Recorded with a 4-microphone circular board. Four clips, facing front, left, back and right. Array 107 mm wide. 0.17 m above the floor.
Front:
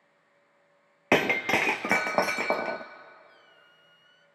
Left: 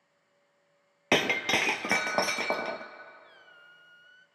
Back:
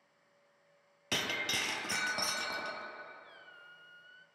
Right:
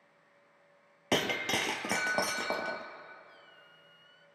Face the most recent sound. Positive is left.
turn(degrees=125)